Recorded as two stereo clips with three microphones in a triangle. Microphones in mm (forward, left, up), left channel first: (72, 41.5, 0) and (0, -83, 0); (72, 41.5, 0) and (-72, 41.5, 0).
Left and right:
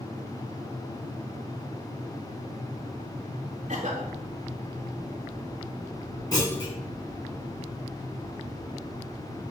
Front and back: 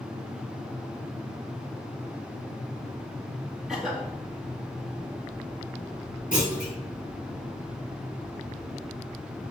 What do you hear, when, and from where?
3.7 s a cough: 95° right, 2 m
6.3 s a clunk: straight ahead, 3.5 m